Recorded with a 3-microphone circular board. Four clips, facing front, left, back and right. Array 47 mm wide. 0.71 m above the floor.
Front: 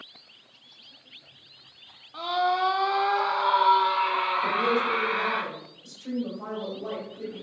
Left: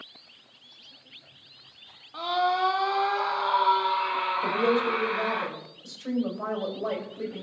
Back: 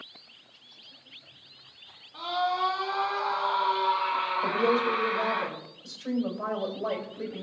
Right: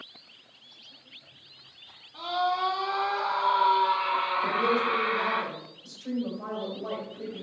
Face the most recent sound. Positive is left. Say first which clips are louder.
# left 3 dB, front 1 dB
turn(degrees=125)